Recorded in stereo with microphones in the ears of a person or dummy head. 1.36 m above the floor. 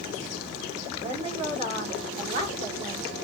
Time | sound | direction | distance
0.9 | a woman speaking | 30° right (ahead or behind) | 1.9 m